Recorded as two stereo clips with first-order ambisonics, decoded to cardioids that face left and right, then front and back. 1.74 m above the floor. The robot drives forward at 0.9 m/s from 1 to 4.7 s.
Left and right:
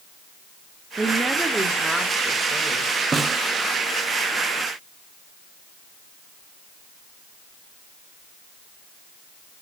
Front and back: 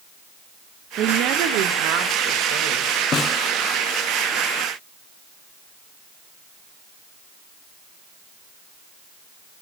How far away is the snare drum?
About 0.6 m.